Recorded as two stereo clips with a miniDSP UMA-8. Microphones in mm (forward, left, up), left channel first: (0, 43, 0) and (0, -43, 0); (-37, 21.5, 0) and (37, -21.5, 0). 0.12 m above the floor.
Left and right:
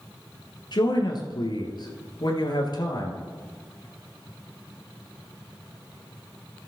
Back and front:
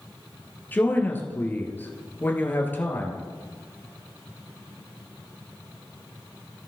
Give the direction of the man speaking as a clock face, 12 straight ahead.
9 o'clock.